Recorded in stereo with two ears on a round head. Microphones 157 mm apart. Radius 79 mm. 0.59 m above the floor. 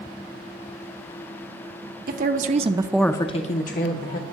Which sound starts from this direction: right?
A woman speaking, at 2.1 s.